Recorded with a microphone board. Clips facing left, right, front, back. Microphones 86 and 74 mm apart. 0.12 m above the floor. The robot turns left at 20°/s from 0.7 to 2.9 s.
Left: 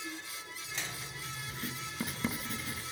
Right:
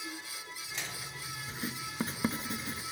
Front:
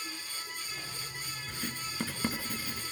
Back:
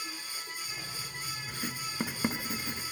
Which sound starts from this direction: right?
Writing, at 1.5 s.